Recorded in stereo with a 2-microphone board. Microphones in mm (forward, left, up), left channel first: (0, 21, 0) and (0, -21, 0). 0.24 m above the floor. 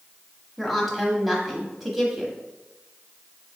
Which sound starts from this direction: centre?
A woman speaking, at 0.6 s.